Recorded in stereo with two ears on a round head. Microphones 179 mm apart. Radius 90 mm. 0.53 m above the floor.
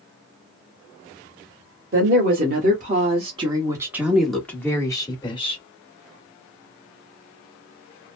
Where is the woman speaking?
50° right (ahead or behind), 1.5 m; by 5.6 s 25° left (ahead or behind), 1.6 m.